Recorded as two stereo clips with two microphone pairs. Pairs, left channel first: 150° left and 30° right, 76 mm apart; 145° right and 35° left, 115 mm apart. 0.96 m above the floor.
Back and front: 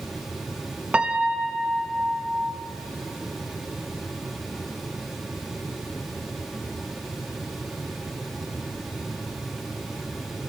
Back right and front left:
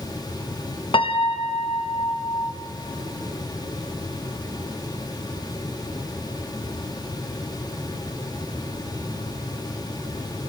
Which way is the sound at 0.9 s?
105° right.